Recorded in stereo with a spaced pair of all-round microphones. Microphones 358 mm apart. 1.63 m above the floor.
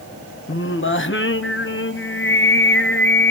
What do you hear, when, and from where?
0.5 s singing: 35° left (ahead or behind), 1.0 m